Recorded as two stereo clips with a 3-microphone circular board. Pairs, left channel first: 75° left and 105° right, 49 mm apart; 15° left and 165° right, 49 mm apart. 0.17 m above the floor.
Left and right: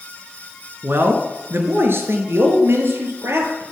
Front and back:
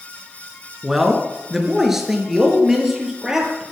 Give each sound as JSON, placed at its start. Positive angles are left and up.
{"t": 0.8, "sound": "a man speaking", "azimuth_deg": -80, "distance_m": 1.6}